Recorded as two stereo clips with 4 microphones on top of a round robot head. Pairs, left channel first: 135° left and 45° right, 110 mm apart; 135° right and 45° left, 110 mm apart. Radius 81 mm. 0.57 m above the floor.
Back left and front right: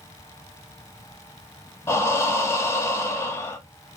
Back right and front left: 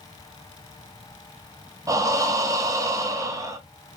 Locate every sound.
1.9 s breathing: 80° left, 0.7 m